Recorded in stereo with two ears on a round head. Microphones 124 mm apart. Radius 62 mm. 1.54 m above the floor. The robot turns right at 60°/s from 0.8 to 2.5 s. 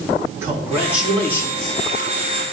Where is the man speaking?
20° right, 3.5 m; by 1.8 s 40° left, 3.5 m.